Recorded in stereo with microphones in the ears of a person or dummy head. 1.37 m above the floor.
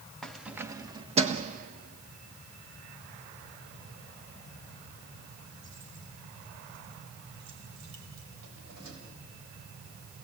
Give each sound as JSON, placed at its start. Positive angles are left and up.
{"t": 0.2, "sound": "keys jangling", "side_deg": 0, "distance_m": 1.0}